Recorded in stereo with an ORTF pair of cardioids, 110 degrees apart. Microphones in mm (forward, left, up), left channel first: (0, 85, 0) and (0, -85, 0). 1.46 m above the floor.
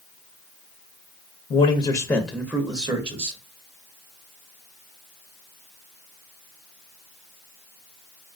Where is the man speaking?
40° left, 0.6 m; by 3.4 s 40° right, 0.9 m.